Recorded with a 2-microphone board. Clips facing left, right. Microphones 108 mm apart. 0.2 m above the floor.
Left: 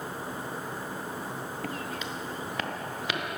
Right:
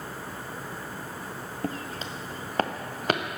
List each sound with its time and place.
1.6 s footsteps: 30° right (ahead or behind), 0.7 m; by 3.4 s 50° right (ahead or behind), 1.8 m